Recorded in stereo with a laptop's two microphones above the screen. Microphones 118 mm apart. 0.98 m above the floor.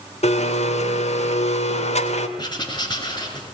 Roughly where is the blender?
Left.